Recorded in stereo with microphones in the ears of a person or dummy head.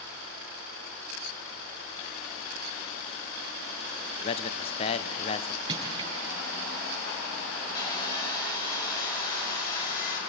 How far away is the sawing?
About 3.5 m.